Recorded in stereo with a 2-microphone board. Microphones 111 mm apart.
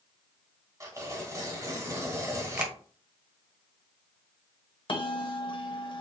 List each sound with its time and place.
0.8 s tearing paper: 30° right (ahead or behind), 1.0 m
2.6 s a finger snap: 10° right (ahead or behind), 0.7 m
4.9 s a bell: 45° left (ahead or behind), 0.7 m